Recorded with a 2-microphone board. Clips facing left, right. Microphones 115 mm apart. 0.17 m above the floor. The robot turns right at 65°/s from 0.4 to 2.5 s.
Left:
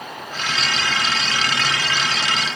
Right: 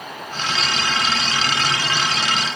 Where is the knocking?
I don't hear knocking.